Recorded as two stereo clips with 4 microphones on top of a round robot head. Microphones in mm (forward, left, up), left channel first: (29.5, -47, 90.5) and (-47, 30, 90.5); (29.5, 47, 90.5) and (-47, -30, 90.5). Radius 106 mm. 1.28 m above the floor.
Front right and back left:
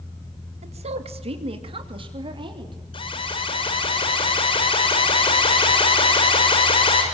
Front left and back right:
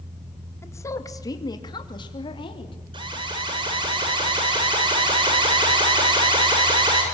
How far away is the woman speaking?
About 2 m.